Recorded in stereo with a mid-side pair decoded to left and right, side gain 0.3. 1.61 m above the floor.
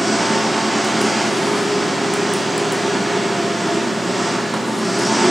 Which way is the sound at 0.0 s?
15° right.